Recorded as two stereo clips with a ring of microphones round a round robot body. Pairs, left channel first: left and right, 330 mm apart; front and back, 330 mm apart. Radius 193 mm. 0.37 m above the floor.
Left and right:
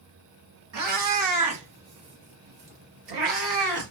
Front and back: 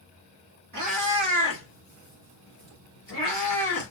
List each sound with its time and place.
0.7 s a cat meowing: 125° right, 1.8 m; by 3.9 s 60° right, 1.4 m